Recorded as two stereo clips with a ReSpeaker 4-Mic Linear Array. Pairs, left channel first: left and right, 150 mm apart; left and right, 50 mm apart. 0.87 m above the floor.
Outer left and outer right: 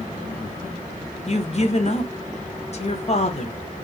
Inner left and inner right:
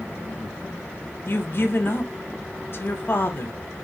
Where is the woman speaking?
45° left (ahead or behind), 0.7 m.